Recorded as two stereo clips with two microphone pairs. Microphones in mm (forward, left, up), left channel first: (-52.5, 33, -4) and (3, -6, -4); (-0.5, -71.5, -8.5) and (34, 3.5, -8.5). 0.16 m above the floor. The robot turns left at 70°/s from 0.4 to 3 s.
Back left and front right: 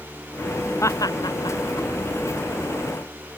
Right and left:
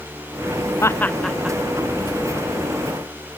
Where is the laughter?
170° right; by 1.6 s 135° left.